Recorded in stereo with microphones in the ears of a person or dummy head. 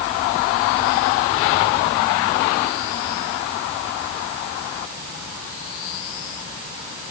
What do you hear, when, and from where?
Only background noise.